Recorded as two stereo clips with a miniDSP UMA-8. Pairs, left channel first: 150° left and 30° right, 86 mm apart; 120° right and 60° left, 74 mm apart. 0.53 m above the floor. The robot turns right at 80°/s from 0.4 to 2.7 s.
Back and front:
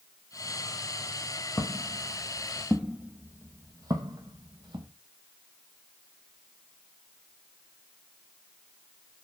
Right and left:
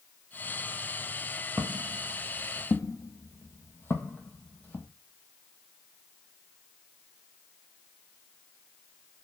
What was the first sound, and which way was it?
Footsteps, 110° left.